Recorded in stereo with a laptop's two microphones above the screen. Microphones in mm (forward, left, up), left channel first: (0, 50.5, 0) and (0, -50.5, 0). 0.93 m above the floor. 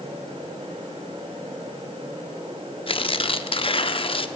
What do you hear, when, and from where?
0.0 s a fan: 70° right (ahead or behind), 2.5 m
2.9 s tearing paper: 60° left (ahead or behind), 0.7 m